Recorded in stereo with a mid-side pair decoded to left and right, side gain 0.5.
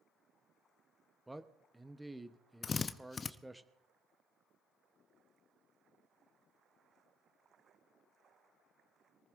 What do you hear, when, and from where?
1.3 s a man speaking: 10° right, 1.0 m
2.6 s a drill: 35° left, 0.7 m